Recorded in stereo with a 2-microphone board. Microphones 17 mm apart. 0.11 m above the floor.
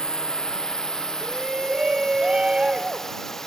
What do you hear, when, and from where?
0.0 s a drone: 50° left (ahead or behind); by 3.5 s 25° left (ahead or behind)
1.2 s a shout: 55° right (ahead or behind)